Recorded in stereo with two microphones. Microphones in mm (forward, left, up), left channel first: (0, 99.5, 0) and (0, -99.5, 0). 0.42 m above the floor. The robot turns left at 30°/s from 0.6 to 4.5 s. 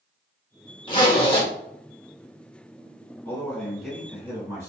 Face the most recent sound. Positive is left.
turn(degrees=-20)